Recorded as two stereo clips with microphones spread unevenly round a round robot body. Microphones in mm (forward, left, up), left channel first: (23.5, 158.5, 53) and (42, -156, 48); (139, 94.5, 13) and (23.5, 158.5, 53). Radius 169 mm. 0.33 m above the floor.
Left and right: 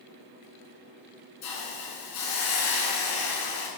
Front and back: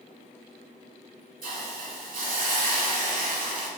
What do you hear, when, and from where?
1.4 s a hiss: 135° left, 1.8 m